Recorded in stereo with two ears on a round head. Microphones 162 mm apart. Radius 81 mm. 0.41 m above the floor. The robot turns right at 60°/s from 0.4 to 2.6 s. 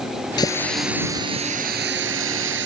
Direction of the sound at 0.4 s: 155° left.